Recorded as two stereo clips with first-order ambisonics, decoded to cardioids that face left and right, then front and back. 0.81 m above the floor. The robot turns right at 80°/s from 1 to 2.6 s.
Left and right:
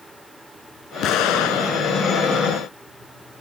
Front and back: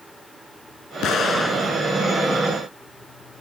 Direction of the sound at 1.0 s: 45° left.